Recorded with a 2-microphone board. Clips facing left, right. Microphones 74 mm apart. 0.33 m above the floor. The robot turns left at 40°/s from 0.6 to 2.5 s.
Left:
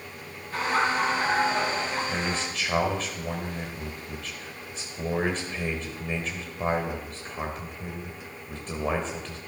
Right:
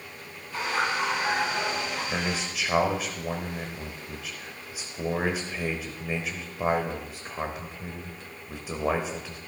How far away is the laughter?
About 5 m.